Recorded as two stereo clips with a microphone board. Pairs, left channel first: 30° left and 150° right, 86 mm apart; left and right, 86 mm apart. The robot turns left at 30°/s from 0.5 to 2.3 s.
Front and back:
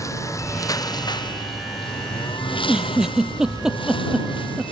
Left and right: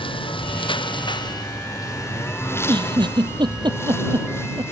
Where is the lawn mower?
85° left; by 4.7 s 30° left.